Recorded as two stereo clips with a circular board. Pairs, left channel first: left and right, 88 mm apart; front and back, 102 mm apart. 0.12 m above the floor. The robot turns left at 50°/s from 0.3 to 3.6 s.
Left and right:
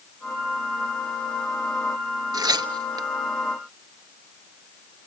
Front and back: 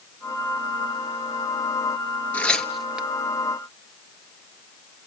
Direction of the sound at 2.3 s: 70° right.